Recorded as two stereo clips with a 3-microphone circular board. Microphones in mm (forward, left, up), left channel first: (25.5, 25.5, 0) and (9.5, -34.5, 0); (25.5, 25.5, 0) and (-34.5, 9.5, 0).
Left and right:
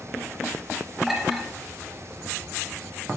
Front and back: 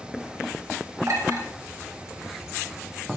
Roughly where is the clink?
Behind.